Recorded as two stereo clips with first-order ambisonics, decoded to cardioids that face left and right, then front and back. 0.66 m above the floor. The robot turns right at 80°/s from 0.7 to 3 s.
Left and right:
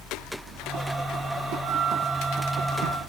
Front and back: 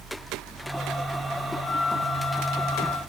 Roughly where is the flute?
Right.